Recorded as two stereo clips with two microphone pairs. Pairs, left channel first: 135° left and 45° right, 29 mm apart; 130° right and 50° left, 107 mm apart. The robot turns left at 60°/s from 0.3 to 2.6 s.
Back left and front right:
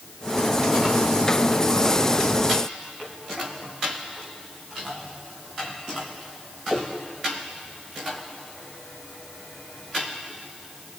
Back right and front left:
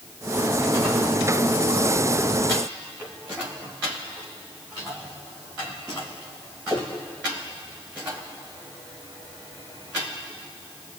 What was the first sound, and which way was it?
Only background noise.